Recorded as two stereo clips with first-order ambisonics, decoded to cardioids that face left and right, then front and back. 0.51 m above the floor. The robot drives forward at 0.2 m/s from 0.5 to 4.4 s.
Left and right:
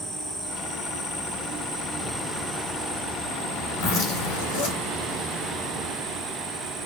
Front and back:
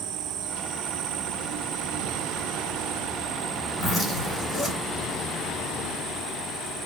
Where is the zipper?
95° left, 3 m.